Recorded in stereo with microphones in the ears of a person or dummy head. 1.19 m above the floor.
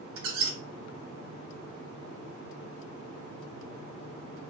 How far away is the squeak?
About 1.0 m.